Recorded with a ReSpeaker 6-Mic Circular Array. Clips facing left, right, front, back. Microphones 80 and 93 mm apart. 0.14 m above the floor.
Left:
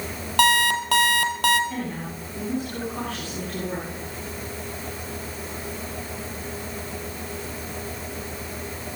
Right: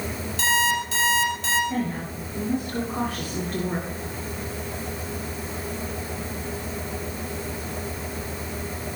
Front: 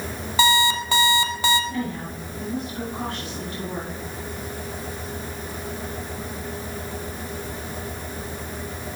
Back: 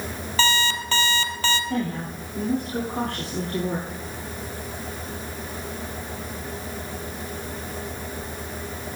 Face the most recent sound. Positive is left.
turn(degrees=-160)